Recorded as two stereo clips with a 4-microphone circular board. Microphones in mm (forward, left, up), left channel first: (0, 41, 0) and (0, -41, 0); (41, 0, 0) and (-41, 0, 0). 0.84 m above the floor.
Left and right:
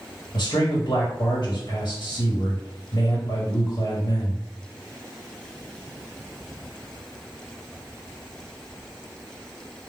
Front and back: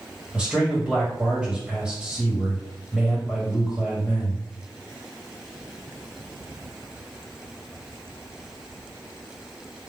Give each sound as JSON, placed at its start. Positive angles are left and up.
{"t": 0.3, "sound": "a man speaking", "azimuth_deg": 105, "distance_m": 1.5}